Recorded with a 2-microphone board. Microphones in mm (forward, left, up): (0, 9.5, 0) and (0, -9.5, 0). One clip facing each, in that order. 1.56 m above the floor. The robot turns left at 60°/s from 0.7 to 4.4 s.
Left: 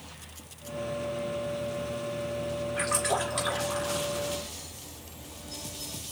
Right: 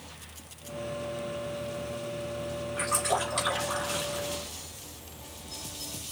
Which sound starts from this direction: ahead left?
A splash, at 2.8 s.